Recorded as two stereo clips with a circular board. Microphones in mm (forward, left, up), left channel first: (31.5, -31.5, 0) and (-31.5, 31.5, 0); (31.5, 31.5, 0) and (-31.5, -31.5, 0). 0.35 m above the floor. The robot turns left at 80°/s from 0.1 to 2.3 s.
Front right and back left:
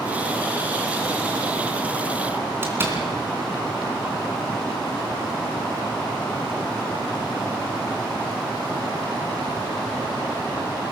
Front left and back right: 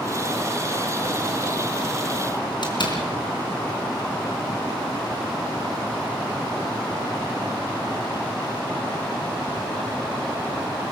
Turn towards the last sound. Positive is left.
turn(degrees=70)